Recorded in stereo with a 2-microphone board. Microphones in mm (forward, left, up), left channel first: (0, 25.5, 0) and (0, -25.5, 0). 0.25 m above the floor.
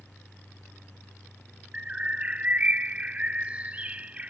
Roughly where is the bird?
Right.